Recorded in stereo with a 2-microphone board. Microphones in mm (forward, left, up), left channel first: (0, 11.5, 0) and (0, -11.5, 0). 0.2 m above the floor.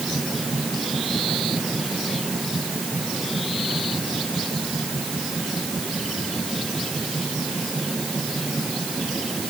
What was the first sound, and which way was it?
Only background noise.